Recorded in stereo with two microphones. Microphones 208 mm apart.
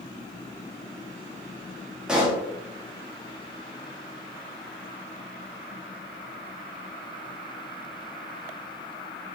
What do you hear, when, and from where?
2.1 s a pop: 5° right (ahead or behind), 0.6 m